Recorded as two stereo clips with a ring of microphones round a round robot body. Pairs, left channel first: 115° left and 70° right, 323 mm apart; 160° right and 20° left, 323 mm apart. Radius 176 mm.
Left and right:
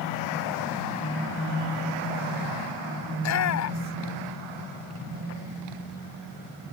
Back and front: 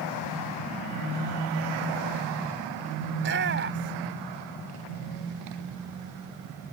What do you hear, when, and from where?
3.1 s a shout: 75° left